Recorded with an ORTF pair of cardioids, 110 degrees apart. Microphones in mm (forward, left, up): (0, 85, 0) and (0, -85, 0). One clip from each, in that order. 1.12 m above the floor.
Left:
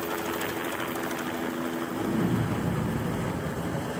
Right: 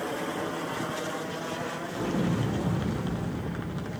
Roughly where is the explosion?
Ahead.